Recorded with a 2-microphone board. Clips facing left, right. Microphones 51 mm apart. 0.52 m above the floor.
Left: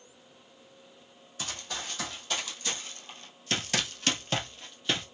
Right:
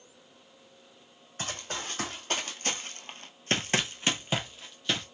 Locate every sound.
1.4 s running footsteps: 40° right (ahead or behind), 1.3 m; by 5.0 s 5° left (ahead or behind), 0.9 m